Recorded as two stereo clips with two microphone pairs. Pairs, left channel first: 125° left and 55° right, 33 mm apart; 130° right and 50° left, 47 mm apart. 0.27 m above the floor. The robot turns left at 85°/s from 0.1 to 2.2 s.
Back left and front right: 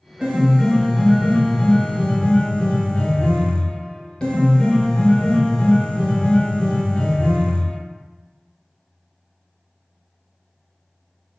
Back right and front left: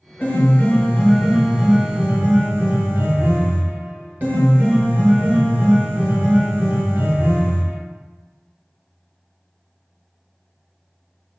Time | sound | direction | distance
0.2 | a piano | 125° right | 1.1 m